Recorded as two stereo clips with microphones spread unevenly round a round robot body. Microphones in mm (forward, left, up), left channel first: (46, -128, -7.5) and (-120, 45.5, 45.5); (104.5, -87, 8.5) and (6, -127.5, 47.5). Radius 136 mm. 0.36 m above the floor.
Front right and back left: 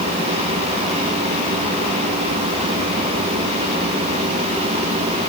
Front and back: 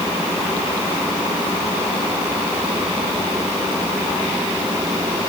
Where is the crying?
I don't hear crying.